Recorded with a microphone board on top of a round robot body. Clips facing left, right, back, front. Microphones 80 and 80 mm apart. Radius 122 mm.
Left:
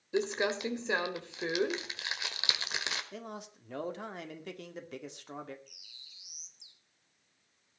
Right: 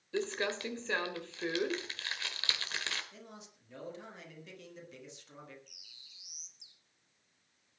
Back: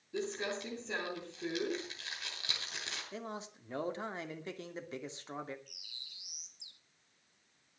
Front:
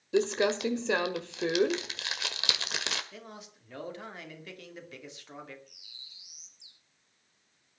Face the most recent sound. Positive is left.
turn(degrees=180)